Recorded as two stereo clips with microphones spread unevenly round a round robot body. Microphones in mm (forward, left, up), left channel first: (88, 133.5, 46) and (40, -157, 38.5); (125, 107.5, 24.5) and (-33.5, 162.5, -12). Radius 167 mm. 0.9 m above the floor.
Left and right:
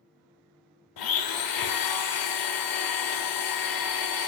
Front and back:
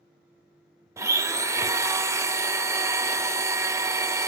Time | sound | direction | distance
1.0 | a blender | 90° left | 0.7 m